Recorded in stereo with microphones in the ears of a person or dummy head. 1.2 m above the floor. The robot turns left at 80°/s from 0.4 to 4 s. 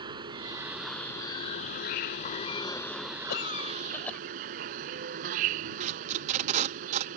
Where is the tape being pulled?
40° right (ahead or behind).